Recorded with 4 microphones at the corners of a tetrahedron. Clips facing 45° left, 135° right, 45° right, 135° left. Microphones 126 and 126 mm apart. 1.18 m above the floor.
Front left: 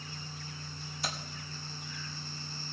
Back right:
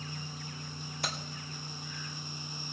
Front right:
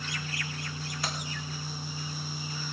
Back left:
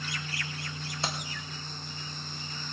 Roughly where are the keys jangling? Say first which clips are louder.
Even, back left 2 dB; behind.